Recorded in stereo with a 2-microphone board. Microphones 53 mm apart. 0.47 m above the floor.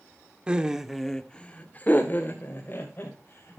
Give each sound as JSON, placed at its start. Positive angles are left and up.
{"t": 0.5, "sound": "laughter", "side_deg": -20, "distance_m": 1.2}